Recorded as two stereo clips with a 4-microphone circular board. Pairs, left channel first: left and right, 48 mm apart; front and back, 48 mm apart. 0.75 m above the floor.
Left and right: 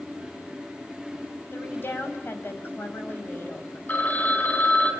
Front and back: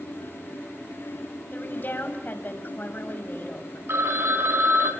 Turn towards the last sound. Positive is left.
turn(degrees=150)